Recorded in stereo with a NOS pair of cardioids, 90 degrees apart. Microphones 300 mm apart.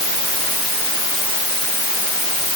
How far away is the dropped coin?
I don't hear a dropped coin.